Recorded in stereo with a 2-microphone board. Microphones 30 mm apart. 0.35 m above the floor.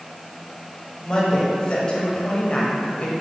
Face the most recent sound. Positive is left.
turn(degrees=45)  # may be behind; listen again after turning